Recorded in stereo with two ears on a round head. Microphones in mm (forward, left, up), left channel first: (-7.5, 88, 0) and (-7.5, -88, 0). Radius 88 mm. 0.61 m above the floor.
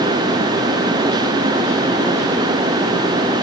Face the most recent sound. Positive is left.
No sound to turn to.